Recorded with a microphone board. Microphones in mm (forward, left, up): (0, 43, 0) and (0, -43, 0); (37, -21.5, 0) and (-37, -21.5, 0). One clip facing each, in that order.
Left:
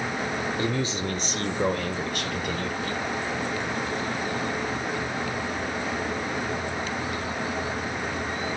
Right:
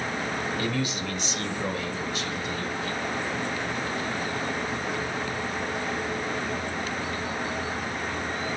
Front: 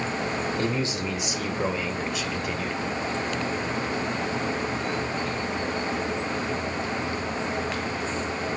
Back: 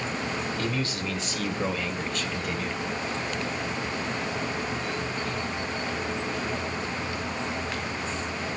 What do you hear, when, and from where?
0.6 s a man speaking: 45° left, 1.5 m; by 2.8 s 90° left, 2.5 m